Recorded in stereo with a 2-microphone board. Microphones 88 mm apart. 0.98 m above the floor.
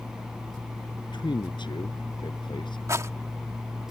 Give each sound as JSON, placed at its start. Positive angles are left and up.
{"t": 1.1, "sound": "a man speaking", "side_deg": 65}
{"t": 2.9, "sound": "a rattle", "side_deg": -35}